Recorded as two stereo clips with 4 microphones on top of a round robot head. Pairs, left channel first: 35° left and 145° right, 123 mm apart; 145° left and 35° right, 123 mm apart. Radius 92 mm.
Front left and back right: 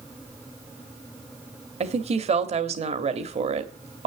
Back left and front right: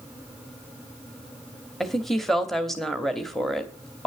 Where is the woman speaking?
125° right, 1.1 m.